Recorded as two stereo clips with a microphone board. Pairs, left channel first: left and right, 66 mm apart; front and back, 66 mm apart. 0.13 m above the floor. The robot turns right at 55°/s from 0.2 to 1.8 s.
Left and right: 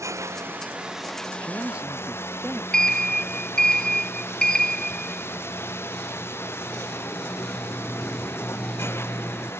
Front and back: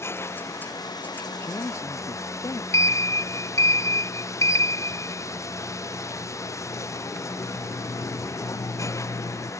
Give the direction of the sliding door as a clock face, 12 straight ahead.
12 o'clock.